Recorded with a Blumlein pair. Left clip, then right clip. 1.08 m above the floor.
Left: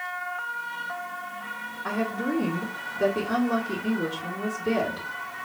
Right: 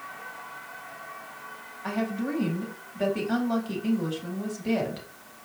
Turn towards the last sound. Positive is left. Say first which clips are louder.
# left 2 dB
turn(degrees=-20)